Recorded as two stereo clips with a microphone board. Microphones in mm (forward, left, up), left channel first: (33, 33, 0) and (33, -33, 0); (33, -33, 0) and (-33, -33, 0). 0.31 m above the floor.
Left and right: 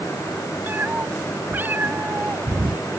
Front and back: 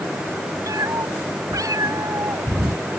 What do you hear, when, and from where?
0.7 s a cat meowing: 150° right